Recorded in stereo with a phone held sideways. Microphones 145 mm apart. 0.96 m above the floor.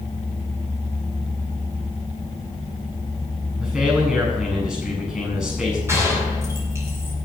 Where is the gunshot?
20° right (ahead or behind), 5.5 m.